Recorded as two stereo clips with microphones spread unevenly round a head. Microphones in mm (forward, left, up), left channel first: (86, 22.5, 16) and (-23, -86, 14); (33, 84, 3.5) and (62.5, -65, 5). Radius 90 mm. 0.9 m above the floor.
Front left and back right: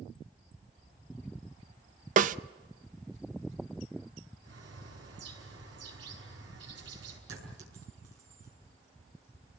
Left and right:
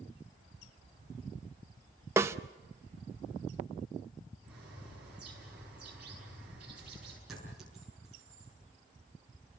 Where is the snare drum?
150° right, 0.6 m.